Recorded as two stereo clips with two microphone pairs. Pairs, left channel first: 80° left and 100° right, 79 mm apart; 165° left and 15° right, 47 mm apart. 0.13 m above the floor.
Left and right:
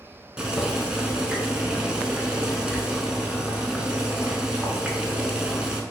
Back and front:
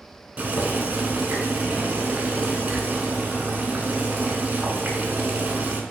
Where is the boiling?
30° right, 0.6 m.